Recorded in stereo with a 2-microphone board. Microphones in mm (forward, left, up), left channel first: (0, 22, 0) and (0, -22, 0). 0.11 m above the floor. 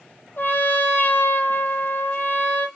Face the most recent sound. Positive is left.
turn(degrees=50)  # may be behind; listen again after turning